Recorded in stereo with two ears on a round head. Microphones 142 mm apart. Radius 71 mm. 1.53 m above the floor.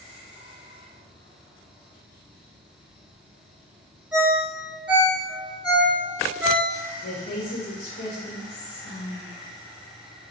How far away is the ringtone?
About 0.7 m.